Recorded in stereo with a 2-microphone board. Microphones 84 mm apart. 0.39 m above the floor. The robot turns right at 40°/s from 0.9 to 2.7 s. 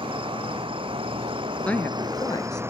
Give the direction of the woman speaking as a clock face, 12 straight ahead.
12 o'clock.